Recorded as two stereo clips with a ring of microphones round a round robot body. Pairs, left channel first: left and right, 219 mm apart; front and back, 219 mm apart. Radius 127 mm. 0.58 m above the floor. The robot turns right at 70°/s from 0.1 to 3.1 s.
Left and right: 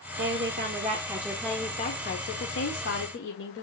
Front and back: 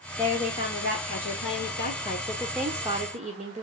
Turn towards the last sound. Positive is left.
turn(degrees=125)